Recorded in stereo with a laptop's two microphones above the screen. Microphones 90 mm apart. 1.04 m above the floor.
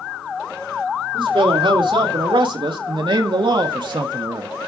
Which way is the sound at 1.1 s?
75° right (ahead or behind).